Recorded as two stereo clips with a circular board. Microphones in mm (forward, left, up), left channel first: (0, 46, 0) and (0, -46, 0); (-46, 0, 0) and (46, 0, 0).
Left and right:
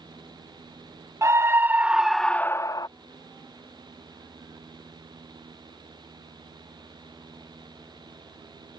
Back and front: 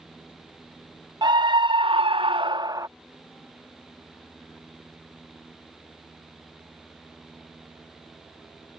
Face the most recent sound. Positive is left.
turn(degrees=50)